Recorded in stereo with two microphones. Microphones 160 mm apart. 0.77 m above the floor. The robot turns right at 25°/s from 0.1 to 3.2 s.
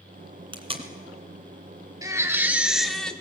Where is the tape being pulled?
35° right (ahead or behind), 1.9 m; by 0.9 s 40° right (ahead or behind), 1.9 m.